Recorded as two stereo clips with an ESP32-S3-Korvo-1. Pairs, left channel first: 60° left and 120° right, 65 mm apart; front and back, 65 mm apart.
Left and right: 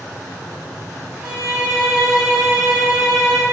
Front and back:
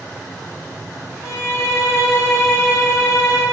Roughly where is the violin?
Ahead right.